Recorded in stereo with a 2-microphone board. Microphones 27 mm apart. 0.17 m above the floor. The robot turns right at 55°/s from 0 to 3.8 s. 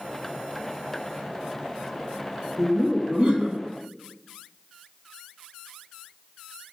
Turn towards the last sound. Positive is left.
turn(degrees=-25)